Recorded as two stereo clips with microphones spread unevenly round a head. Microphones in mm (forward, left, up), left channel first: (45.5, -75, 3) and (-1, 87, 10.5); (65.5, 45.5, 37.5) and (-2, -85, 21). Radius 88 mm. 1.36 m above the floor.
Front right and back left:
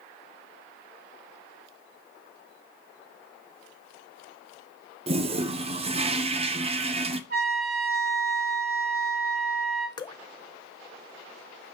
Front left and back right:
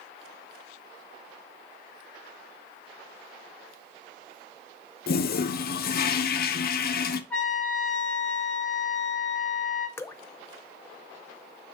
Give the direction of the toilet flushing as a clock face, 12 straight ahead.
10 o'clock.